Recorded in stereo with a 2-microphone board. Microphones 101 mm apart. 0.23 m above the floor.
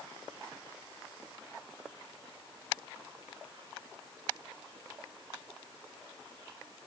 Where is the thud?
I don't hear a thud.